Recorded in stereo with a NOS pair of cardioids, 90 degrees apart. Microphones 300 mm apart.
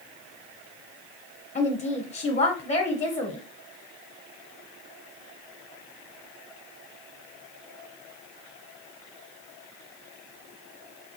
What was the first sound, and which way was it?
A woman speaking, 25° left.